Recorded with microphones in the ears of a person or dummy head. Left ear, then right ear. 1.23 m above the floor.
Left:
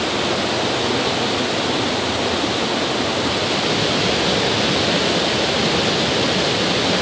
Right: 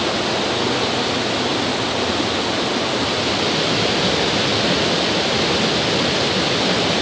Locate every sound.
Only background noise.